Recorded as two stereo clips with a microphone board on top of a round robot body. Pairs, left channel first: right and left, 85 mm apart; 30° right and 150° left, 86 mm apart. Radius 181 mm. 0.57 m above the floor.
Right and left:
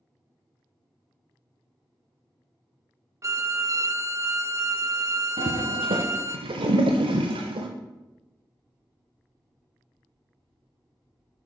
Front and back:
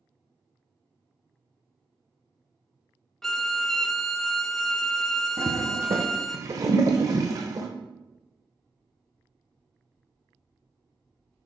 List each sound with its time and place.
3.2 s a violin: 55° left, 0.7 m
5.4 s a toilet flushing: 100° left, 0.6 m